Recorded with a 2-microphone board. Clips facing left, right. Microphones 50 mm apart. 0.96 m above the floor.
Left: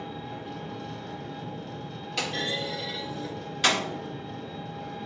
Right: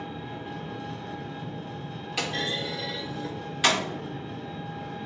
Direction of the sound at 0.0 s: 20° right (ahead or behind).